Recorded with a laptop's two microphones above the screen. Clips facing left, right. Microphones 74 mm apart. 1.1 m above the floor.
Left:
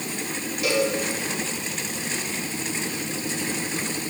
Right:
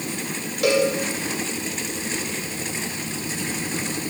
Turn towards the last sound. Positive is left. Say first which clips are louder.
# right 4 dB
turn(degrees=-75)  # may be behind; listen again after turning